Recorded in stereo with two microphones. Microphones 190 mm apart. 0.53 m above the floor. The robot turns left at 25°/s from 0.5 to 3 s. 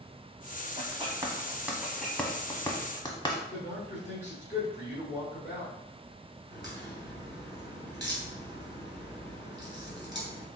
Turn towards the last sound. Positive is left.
turn(degrees=70)  # may be behind; listen again after turning